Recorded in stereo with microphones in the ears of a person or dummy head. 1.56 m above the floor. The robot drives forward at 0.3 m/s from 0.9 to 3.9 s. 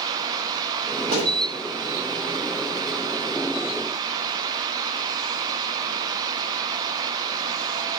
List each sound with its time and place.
1.1 s a thud: 30° right (ahead or behind), 2.0 m